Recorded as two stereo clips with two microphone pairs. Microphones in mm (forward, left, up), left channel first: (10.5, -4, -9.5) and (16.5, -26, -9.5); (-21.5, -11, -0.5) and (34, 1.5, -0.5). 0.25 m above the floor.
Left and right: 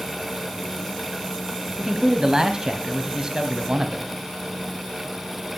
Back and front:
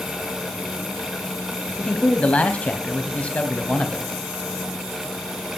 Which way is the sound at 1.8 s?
115° right.